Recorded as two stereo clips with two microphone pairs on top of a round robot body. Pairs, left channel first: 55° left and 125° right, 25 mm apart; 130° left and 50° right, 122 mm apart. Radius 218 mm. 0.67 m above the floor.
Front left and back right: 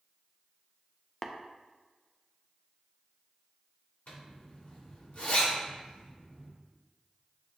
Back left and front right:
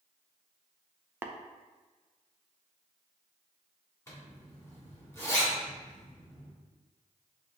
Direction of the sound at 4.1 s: 60° left.